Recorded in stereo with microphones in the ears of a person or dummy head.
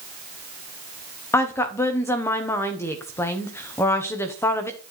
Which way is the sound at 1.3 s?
15° left (ahead or behind).